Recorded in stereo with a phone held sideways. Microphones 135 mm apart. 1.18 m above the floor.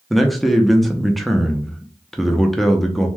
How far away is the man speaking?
About 0.6 m.